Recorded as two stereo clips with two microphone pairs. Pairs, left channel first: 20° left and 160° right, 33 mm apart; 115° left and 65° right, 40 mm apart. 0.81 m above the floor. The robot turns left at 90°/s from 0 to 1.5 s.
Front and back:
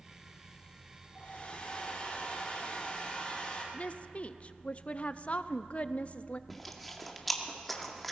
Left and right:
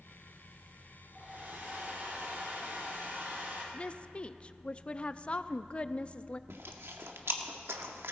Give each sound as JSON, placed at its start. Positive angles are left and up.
{"t": 1.1, "sound": "a hair dryer", "azimuth_deg": 0, "distance_m": 4.5}
{"t": 3.7, "sound": "a woman speaking", "azimuth_deg": 60, "distance_m": 0.5}
{"t": 6.5, "sound": "chewing", "azimuth_deg": -65, "distance_m": 1.1}